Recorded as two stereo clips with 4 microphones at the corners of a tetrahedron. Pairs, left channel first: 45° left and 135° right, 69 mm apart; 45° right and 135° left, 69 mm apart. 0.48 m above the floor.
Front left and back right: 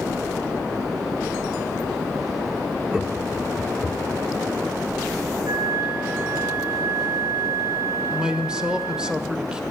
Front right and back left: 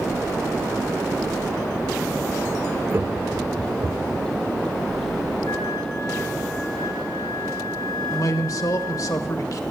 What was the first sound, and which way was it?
Laughter, 150° left.